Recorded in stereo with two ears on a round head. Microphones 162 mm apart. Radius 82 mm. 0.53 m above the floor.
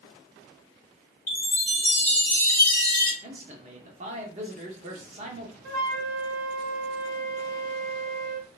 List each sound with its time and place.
1.3 s a chime: 10° left (ahead or behind), 1.0 m
3.2 s a man speaking: 40° right (ahead or behind), 0.9 m
5.6 s a flute: 80° right, 1.1 m